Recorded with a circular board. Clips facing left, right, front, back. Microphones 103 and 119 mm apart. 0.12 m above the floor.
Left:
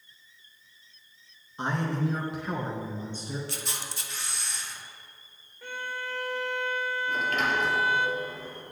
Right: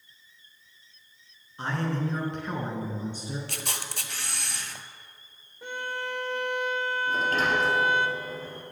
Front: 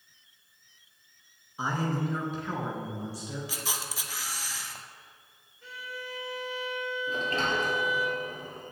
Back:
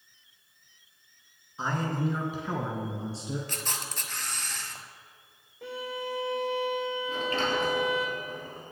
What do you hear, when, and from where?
1.6 s a man speaking: 60° left, 1.3 m; by 3.4 s 155° right, 1.4 m
3.5 s a camera shutter: 85° right, 0.5 m
5.6 s a violin: 160° right, 0.8 m
7.1 s a sliding door: 45° right, 2 m